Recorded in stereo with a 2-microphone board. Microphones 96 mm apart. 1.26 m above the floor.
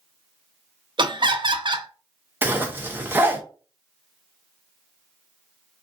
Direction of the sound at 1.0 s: 55° right (ahead or behind).